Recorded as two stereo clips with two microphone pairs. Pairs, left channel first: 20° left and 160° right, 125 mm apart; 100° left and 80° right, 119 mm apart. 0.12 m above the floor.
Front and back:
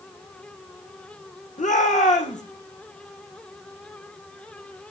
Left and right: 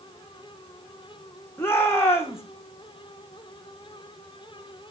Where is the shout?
30° left, 5.5 m.